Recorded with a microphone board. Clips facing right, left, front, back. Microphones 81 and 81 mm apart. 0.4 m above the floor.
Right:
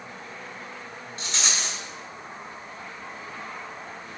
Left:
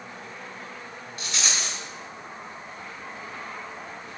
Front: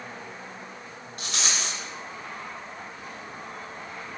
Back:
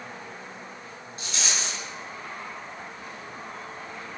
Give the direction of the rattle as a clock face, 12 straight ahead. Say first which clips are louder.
Even, front 1 dB; 1 o'clock.